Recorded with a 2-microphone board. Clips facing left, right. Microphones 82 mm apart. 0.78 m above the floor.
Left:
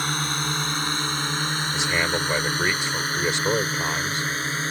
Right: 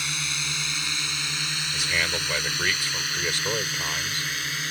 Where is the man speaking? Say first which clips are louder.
Left 3 dB; 25° left (ahead or behind).